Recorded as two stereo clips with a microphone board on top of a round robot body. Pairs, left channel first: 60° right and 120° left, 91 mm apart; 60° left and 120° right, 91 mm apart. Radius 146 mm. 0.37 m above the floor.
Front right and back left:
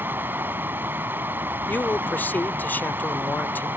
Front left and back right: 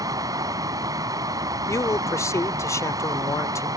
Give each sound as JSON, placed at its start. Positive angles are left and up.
{"t": 0.0, "sound": "running water", "azimuth_deg": -170}
{"t": 1.7, "sound": "a man speaking", "azimuth_deg": 10}